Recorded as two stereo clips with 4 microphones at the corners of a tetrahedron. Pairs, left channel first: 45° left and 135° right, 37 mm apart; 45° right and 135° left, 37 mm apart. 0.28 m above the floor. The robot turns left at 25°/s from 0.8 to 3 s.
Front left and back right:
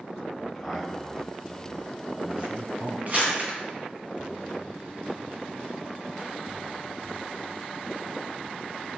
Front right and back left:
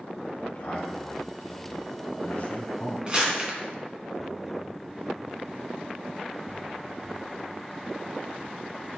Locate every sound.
0.4 s a man speaking: 45° right, 2.5 m; by 3.0 s 100° right, 2.5 m
3.1 s crumpling: 165° right, 3 m